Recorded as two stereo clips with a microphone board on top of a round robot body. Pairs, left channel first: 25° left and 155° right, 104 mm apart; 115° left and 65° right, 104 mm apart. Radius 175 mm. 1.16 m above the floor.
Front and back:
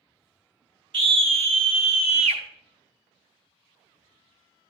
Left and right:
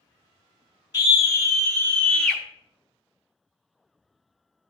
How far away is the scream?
About 2.0 m.